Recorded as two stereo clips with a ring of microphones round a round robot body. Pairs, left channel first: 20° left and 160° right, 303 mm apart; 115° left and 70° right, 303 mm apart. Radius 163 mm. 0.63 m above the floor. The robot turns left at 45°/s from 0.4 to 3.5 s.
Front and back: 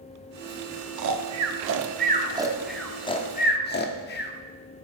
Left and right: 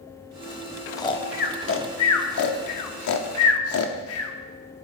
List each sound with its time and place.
1.0 s snoring: 170° right, 1.1 m; by 4.3 s 75° left, 1.1 m